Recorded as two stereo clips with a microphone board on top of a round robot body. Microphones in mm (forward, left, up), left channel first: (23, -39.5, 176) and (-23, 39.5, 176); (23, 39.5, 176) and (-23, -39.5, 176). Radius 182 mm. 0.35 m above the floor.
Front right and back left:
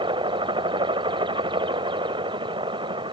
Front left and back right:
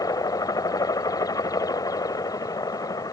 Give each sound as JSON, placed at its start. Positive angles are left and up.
{"t": 0.0, "sound": "a helicopter", "azimuth_deg": 105}